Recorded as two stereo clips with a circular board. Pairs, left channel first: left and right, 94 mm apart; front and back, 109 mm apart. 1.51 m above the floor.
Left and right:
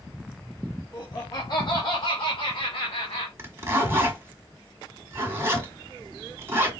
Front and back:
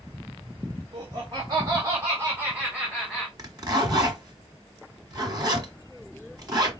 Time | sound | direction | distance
0.9 | laughter | 140° left | 1.9 m
3.4 | a zipper | 140° right | 1.6 m